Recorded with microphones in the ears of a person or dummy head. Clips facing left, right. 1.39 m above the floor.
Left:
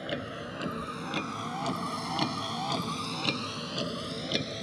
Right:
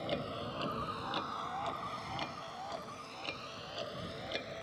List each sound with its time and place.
0.0 s a vehicle: 15° left (ahead or behind); by 4.6 s 55° left (ahead or behind)